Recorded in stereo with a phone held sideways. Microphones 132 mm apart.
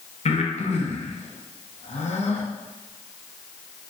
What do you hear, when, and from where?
0.2 s breathing: 55° left (ahead or behind), 0.7 m